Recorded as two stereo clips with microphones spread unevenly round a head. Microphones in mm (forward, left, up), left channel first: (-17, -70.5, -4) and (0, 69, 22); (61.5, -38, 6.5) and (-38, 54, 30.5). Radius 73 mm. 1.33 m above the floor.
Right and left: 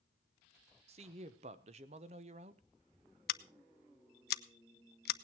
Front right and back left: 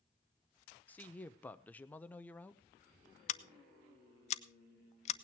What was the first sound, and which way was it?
A woman speaking, 35° left.